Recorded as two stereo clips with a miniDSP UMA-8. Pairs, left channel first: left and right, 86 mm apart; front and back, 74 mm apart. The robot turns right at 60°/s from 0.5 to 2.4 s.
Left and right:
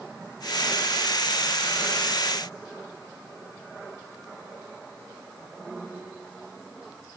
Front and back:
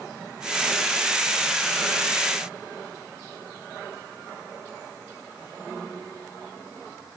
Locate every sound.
Only background noise.